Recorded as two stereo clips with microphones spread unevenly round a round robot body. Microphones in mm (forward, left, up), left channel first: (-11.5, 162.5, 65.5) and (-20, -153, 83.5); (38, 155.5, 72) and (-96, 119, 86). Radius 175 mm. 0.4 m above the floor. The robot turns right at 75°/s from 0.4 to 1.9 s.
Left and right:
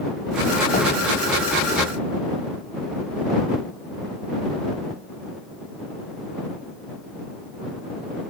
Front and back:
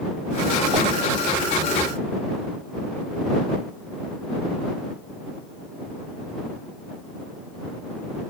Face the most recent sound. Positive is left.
turn(degrees=-120)